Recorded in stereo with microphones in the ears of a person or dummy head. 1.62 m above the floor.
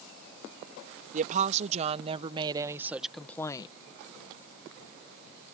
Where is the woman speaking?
45° right (ahead or behind); by 3.7 s 30° left (ahead or behind).